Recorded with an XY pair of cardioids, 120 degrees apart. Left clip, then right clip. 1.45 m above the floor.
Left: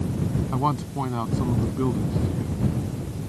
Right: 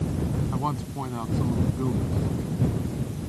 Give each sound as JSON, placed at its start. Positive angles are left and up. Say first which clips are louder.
{"t": 0.5, "sound": "a man speaking", "louder": "left 7 dB", "azimuth_deg": 25}